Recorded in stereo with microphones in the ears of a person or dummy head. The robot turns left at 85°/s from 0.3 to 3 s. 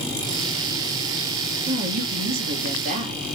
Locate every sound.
1.7 s a woman speaking: 30° right, 1.6 m; by 3.3 s 145° right, 1.6 m